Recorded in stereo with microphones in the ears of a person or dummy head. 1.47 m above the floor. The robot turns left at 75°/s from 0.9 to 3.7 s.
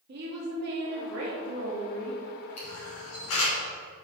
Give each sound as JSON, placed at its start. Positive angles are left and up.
{"t": 0.1, "sound": "a woman speaking", "azimuth_deg": -60, "distance_m": 2.5}
{"t": 2.6, "sound": "a camera shutter", "side_deg": 35, "distance_m": 3.5}